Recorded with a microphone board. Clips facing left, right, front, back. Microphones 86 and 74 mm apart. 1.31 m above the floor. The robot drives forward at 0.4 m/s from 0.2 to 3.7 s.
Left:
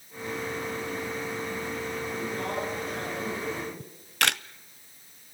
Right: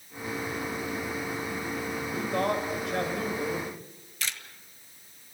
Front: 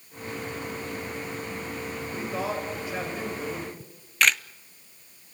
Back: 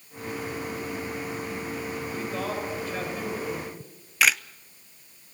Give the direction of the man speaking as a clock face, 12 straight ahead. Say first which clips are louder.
Right 7 dB, front 2 dB; 3 o'clock.